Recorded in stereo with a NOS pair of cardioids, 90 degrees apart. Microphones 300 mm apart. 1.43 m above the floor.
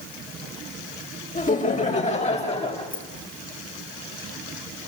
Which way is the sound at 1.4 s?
25° left.